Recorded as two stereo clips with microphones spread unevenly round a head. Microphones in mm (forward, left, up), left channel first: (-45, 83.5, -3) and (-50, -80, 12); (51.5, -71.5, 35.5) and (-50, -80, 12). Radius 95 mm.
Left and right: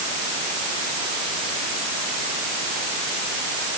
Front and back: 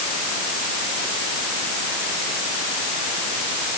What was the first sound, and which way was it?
Only background noise.